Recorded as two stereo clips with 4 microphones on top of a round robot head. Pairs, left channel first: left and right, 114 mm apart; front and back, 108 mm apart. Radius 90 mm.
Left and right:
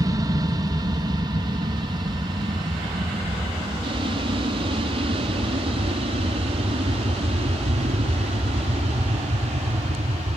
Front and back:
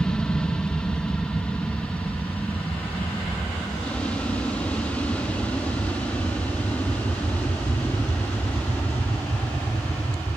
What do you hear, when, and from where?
0.0 s an aircraft: 80° right